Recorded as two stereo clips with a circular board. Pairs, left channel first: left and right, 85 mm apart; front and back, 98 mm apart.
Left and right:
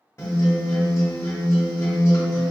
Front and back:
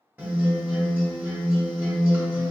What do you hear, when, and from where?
0.2 s a guitar: 120° left, 1.2 m